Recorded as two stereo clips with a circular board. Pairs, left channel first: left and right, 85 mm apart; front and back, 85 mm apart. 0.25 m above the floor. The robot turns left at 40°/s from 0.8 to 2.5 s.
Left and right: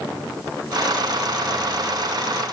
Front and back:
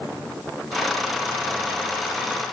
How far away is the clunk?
I don't hear a clunk.